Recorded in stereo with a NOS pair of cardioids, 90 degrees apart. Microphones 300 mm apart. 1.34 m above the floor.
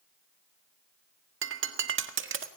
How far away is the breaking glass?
About 1.7 m.